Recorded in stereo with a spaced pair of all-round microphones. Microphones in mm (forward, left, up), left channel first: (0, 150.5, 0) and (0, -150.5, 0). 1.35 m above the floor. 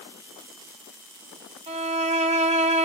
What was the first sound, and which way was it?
A violin, 25° right (ahead or behind).